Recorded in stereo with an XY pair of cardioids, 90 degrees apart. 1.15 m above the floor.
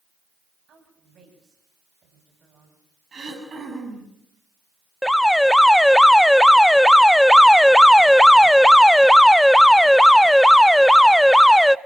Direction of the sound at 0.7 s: 60° right.